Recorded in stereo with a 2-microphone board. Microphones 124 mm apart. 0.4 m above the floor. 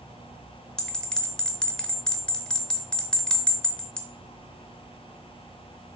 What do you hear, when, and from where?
0.8 s a bell: 5° left (ahead or behind), 0.8 m